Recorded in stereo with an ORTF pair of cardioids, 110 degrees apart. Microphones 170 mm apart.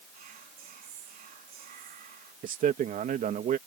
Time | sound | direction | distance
0.1 | whispering | 60° right | ?
2.4 | a man speaking | 55° right | ?